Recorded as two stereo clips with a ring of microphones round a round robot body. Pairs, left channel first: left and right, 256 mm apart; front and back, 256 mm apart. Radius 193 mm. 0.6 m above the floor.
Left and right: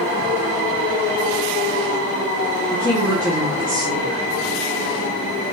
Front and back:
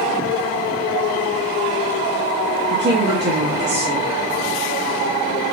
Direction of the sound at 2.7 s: 170° left.